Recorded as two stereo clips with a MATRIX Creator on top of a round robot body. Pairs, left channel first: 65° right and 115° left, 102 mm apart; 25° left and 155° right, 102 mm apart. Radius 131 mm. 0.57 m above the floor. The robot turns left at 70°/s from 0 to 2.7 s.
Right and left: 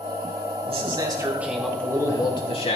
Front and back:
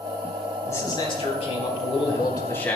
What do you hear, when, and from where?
0.7 s a man speaking: 90° left, 4.5 m; by 2.8 s 55° right, 4.5 m